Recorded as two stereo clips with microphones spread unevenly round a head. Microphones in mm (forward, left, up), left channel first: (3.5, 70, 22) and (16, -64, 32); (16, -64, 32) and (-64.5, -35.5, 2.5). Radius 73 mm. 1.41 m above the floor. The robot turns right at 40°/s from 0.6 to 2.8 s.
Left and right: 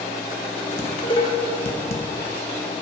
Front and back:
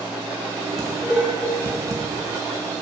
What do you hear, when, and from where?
0.8 s dishes clattering: 40° left, 0.7 m; by 2.0 s 90° left, 0.7 m